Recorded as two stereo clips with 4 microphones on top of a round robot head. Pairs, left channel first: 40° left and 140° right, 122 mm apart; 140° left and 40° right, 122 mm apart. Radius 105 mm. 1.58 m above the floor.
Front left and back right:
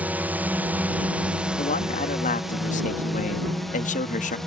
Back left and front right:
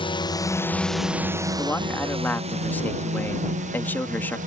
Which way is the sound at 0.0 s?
150° left.